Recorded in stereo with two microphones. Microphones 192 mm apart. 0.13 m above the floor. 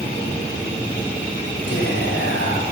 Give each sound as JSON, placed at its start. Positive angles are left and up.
{"t": 1.7, "sound": "whispering", "side_deg": 70, "distance_m": 8.0}